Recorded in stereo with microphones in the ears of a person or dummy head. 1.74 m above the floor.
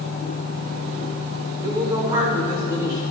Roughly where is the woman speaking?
Right.